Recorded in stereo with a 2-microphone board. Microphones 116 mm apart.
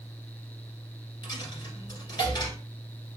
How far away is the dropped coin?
About 1.4 m.